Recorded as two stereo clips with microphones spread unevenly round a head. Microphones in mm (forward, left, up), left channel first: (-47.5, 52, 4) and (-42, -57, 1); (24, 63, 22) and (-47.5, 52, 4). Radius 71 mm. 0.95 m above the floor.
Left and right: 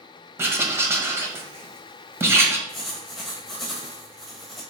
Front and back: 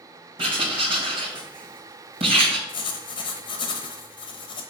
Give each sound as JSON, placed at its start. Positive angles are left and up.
{"t": 0.4, "sound": "writing", "azimuth_deg": -155, "distance_m": 1.6}
{"t": 2.7, "sound": "writing", "azimuth_deg": 5, "distance_m": 1.1}